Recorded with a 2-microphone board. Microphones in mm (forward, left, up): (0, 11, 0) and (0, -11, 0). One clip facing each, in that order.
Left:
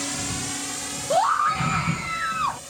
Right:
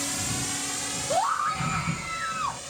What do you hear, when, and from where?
0.0 s a drone: 10° left (ahead or behind); by 2.7 s 10° right (ahead or behind)
1.1 s a scream: 20° left (ahead or behind)